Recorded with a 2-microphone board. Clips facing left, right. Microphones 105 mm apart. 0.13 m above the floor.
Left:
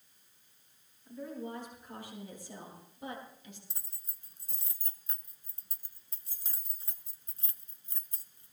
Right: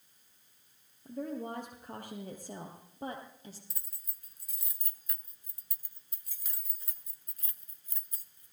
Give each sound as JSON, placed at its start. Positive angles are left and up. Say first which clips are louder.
{"t": 1.1, "sound": "a woman speaking", "louder": "right 3 dB", "side_deg": -60, "distance_m": 3.0}
{"t": 3.7, "sound": "keys jangling", "louder": "left 1 dB", "side_deg": 30, "distance_m": 0.8}